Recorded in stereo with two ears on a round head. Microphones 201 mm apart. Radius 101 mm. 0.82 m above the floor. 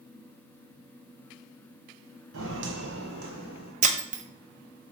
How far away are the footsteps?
About 1.7 m.